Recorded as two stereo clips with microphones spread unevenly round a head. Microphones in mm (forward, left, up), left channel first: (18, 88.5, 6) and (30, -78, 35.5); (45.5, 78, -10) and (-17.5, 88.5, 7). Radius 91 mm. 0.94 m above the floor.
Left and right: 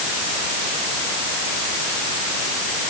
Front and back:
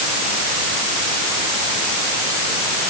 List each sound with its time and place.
Only background noise.